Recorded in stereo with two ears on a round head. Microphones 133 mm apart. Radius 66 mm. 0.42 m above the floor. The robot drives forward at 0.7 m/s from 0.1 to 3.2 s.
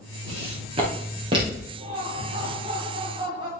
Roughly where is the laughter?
Right.